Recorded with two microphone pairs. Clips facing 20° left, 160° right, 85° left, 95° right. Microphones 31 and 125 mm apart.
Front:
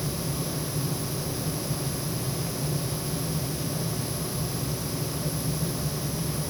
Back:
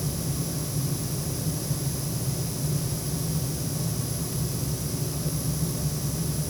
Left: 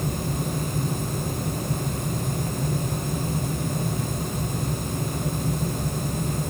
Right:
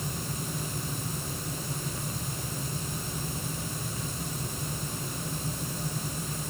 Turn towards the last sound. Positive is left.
No sound to turn to.